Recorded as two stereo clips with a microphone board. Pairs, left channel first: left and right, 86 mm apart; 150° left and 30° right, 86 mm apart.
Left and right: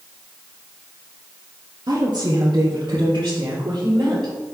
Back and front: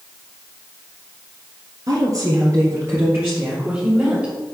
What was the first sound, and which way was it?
A woman speaking, 65° right.